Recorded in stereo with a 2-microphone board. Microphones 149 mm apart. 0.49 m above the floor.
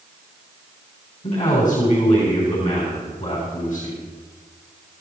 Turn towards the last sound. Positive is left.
turn(degrees=60)  # may be behind; listen again after turning